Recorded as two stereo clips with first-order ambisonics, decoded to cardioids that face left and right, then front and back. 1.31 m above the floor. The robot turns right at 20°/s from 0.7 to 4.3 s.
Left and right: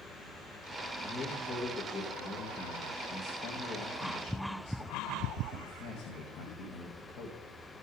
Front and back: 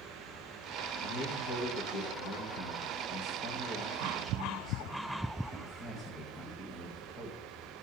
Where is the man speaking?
Straight ahead, 1.7 m; by 7.4 s 65° left, 1.7 m.